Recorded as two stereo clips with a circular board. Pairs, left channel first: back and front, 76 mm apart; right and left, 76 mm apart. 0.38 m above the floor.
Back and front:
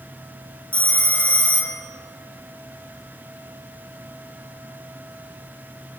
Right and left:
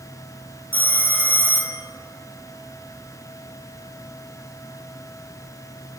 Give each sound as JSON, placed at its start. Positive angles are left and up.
{"t": 0.7, "sound": "a phone ringing", "azimuth_deg": -135, "distance_m": 0.7}